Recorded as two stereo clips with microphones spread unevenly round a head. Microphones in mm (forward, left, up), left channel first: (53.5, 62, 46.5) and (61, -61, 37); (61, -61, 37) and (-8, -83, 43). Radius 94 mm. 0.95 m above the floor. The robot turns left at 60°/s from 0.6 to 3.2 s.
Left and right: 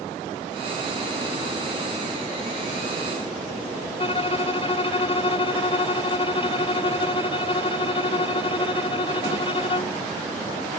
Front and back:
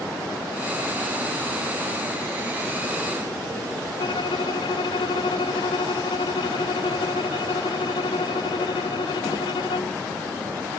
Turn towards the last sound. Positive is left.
turn(degrees=50)